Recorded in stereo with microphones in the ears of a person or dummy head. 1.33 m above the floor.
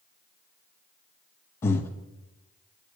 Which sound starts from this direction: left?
Breathing, at 1.6 s.